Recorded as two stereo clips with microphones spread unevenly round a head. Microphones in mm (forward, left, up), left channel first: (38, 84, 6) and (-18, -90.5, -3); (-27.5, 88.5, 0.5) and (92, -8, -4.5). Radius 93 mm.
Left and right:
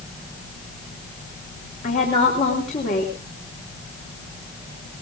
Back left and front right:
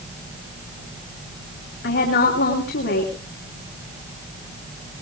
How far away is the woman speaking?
About 3.5 m.